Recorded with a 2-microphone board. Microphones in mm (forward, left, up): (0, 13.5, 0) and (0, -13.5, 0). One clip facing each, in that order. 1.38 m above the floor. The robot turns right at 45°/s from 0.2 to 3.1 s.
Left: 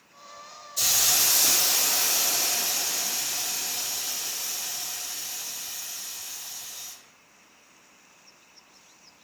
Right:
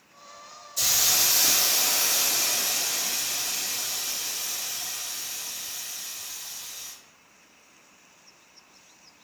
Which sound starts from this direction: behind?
A hiss, at 0.8 s.